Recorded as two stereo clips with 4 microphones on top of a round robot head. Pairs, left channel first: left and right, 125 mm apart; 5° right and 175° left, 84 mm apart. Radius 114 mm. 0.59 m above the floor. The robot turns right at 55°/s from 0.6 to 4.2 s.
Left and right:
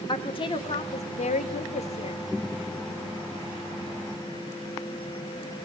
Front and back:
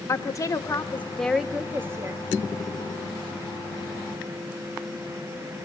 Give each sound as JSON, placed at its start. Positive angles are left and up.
{"t": 0.1, "sound": "a woman speaking", "azimuth_deg": 45, "distance_m": 1.6}